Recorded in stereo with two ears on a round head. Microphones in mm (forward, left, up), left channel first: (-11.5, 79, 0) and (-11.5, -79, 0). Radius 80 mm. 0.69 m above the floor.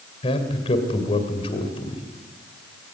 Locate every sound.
0.2 s a man speaking: 35° left (ahead or behind), 2.5 m